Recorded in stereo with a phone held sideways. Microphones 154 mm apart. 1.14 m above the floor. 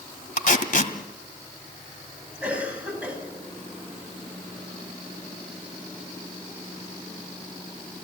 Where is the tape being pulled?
60° left (ahead or behind), 1.7 m.